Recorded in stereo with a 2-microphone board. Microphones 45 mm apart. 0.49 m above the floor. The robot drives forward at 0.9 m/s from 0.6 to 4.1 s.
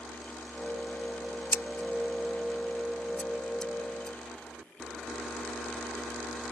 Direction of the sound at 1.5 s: 60° left (ahead or behind).